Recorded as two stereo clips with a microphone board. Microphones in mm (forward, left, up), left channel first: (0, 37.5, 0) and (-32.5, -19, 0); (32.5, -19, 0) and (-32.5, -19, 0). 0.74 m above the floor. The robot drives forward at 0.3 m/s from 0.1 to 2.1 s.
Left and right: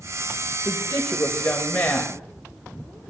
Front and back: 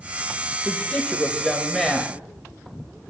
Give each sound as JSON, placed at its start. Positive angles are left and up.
{"t": 0.7, "sound": "a woman speaking", "azimuth_deg": 55, "distance_m": 0.8}